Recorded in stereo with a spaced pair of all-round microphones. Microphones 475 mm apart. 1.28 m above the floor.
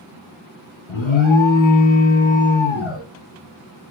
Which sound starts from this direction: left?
An alarm, at 0.9 s.